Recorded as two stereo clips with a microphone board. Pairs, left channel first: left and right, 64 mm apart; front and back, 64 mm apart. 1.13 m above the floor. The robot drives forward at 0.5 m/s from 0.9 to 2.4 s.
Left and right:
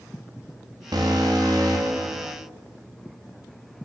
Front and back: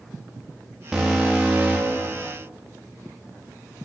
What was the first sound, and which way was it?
An alarm, 100° right.